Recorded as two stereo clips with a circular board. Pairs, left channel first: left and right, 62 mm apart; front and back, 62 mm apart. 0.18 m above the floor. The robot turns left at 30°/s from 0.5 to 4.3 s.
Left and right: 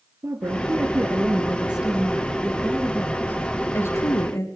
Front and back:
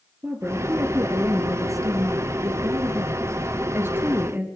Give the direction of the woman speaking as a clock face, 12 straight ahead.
4 o'clock.